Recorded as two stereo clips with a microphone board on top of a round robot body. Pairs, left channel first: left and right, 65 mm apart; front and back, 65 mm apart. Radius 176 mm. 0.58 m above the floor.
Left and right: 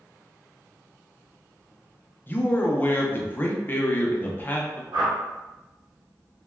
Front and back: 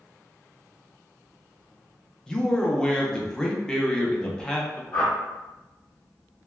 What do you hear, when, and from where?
2.3 s a man speaking: 70° left, 0.8 m
4.9 s a whoosh: 80° right, 1.1 m